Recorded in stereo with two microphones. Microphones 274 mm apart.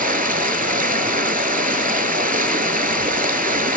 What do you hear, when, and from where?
0.0 s running water: 35° right (ahead or behind), 0.9 m